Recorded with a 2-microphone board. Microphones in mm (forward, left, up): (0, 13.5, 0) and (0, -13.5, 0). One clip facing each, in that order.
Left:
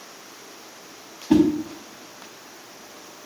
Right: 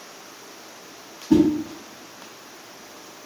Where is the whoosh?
70° left (ahead or behind), 0.6 m.